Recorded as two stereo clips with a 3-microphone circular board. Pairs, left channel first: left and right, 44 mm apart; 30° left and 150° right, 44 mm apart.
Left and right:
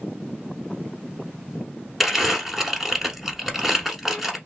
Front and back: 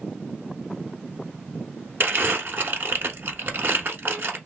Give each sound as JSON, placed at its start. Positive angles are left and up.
{"t": 2.0, "sound": "crumpling", "azimuth_deg": -175, "distance_m": 1.0}